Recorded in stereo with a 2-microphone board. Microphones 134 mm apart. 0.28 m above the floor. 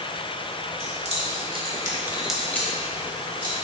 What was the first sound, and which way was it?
Keys jangling, 60° right (ahead or behind).